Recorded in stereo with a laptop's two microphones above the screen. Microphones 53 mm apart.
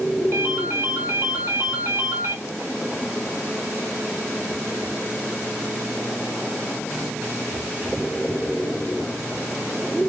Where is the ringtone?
65° right (ahead or behind), 1.5 m.